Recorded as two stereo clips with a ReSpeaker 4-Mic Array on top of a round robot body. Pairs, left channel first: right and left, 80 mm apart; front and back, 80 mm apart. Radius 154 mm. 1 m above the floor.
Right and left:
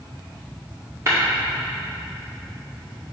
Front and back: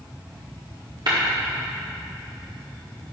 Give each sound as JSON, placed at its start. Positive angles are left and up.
{"t": 1.1, "sound": "tapping", "azimuth_deg": 145, "distance_m": 1.5}